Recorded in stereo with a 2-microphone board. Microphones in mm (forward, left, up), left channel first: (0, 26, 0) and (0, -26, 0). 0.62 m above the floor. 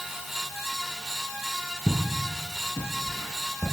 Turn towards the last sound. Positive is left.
turn(degrees=85)